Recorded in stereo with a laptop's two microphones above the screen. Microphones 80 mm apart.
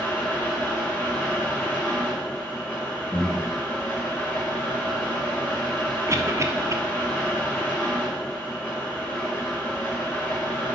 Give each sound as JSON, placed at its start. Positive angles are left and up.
{"t": 0.0, "sound": "a fan", "side_deg": 20, "distance_m": 2.0}
{"t": 3.1, "sound": "breathing", "side_deg": 75, "distance_m": 3.5}
{"t": 6.1, "sound": "a cough", "side_deg": -35, "distance_m": 0.9}